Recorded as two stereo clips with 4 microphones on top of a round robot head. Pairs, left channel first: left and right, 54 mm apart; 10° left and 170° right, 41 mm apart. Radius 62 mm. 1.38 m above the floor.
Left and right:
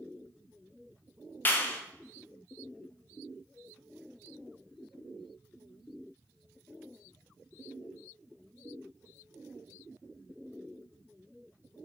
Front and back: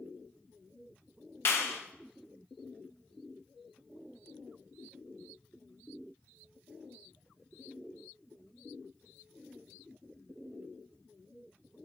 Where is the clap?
35° left, 0.9 m.